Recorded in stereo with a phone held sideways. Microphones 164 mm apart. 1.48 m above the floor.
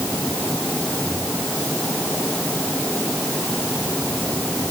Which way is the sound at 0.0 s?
10° left (ahead or behind).